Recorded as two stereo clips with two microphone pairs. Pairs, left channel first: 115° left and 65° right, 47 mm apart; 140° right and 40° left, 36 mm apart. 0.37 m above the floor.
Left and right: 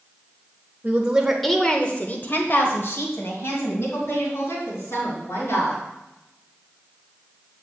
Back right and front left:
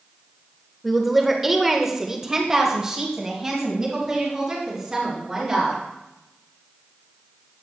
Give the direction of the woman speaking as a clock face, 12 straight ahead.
2 o'clock.